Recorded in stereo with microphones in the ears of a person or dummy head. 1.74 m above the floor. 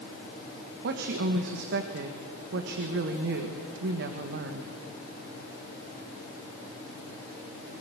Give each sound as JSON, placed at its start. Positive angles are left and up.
{"t": 0.8, "sound": "a woman speaking", "side_deg": -55, "distance_m": 1.6}